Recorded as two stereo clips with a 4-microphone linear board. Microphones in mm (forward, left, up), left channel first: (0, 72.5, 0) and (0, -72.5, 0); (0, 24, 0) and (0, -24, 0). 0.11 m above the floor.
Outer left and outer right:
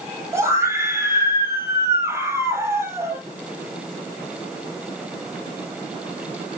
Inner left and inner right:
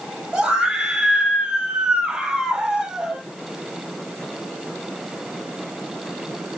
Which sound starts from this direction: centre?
A scream, at 0.3 s.